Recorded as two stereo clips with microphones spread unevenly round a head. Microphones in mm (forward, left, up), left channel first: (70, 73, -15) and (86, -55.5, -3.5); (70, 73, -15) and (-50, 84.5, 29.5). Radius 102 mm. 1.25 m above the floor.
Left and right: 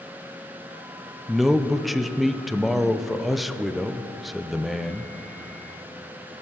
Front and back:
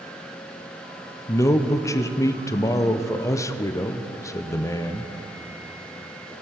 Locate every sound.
1.3 s a man speaking: 10° left, 0.6 m